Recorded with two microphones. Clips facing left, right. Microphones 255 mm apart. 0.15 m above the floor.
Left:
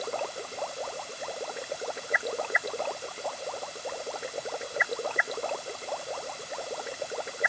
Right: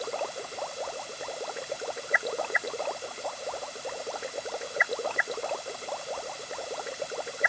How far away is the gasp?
I don't hear a gasp.